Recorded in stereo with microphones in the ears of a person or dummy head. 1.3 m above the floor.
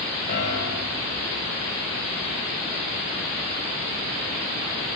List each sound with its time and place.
0.3 s a piano: 45° left (ahead or behind), 9 m